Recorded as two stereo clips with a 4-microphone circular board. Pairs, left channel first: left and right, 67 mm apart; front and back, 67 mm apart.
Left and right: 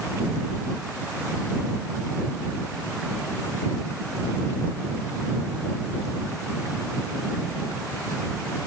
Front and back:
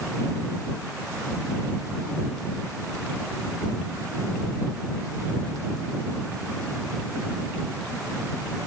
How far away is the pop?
No pop in this recording.